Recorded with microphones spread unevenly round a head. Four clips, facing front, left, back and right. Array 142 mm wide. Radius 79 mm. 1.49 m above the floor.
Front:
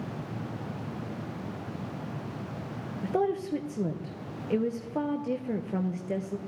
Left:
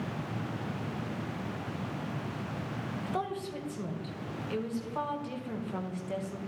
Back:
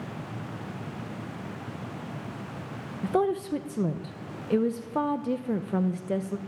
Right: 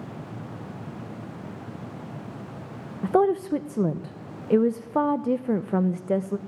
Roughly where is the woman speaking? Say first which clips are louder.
Right 16 dB, back 2 dB; right.